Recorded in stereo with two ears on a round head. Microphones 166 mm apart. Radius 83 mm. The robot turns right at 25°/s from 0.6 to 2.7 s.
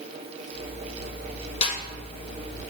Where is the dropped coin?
I don't hear a dropped coin.